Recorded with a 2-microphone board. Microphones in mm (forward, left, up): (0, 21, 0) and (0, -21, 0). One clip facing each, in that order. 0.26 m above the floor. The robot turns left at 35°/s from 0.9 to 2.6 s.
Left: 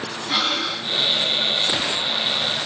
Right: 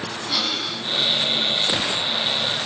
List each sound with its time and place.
0.3 s breathing: 40° left (ahead or behind), 2 m